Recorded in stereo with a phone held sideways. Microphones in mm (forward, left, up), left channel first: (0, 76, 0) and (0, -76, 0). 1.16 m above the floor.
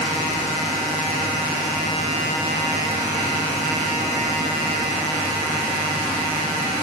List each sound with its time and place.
Only background noise.